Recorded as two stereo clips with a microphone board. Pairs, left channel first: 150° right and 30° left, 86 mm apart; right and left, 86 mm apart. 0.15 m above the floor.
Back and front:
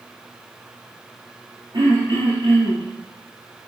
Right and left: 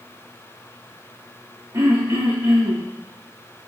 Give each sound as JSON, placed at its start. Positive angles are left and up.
{"t": 1.7, "sound": "throat clearing", "azimuth_deg": 45, "distance_m": 3.5}